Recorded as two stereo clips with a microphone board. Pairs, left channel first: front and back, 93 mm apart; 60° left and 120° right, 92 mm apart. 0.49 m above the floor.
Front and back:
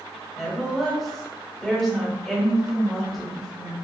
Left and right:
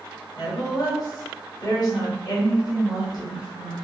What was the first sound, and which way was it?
A woman speaking, 90° left.